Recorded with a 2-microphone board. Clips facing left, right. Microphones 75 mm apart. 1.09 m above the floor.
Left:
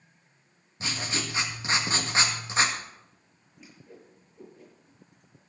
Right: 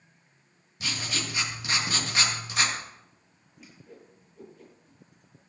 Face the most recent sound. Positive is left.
turn(degrees=0)  # may be behind; listen again after turning